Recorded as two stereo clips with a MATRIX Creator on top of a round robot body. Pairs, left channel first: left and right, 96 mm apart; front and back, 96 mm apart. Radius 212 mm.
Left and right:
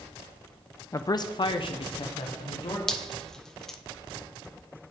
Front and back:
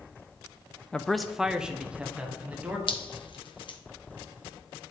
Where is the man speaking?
70° left, 0.6 m; by 2.8 s 105° left, 1.4 m.